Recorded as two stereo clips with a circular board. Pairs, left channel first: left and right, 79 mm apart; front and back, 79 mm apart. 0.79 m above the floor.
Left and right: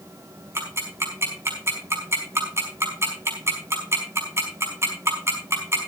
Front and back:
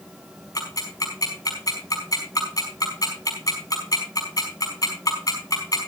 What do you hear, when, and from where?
0.6 s ticking: 35° right, 5 m